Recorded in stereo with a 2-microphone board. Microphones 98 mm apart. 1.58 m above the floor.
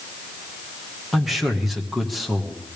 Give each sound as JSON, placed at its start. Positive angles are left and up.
{"t": 1.1, "sound": "a man speaking", "side_deg": 0, "distance_m": 1.8}